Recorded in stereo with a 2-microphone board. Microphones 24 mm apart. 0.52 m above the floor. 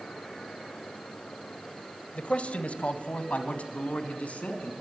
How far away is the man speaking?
About 1.9 m.